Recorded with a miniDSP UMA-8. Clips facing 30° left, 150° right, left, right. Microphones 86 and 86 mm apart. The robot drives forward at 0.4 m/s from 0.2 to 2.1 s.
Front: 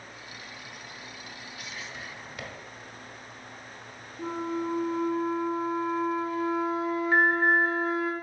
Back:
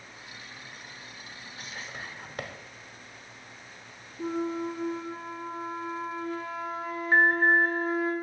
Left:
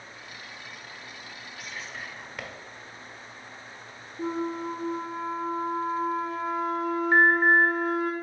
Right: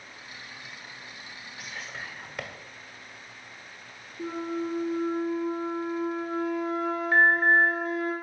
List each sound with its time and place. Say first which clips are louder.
1.6 s whispering: back 1 dB, even; 175° right, 0.9 m
4.2 s a flute: back 1 dB, left 1 dB; 105° left, 2 m
7.1 s an alarm: back 2 dB, left 1 dB; 155° left, 2.5 m